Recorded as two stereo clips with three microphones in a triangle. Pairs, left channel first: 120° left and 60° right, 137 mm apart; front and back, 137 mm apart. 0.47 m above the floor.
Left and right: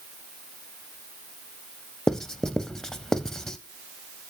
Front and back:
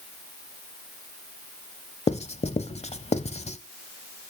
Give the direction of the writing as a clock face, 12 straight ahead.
11 o'clock.